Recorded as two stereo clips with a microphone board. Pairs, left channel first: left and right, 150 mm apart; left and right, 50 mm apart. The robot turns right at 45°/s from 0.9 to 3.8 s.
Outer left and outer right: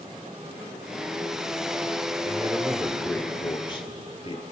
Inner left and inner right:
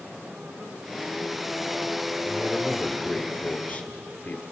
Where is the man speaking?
30° right, 2.5 m; by 4.4 s 40° left, 2.5 m.